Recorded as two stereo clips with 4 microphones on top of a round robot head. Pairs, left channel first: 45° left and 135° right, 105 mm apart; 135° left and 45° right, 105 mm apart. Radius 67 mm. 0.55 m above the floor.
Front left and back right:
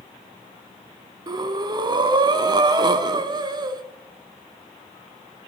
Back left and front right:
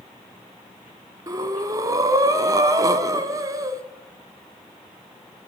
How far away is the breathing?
About 0.9 m.